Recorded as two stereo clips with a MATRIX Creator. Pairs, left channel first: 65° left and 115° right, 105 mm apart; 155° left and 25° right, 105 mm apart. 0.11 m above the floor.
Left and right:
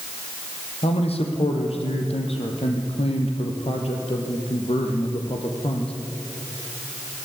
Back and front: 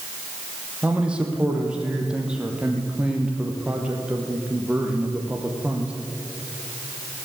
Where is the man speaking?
60° left, 4.5 m.